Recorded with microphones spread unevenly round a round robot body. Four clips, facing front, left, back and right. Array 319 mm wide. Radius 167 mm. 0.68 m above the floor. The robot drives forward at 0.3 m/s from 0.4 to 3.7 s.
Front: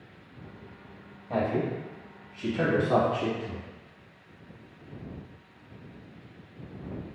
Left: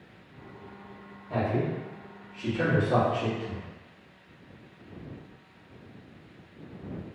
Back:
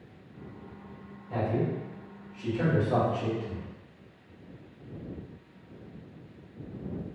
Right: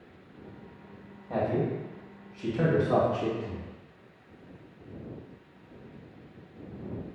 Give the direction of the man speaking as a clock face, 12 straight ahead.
1 o'clock.